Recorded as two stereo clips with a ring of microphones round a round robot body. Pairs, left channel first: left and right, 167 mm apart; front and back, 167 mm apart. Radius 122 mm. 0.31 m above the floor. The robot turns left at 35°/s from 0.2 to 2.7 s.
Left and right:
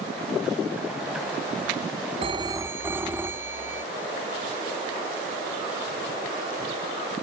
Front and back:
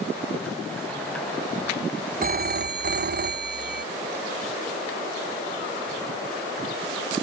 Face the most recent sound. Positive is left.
turn(degrees=-170)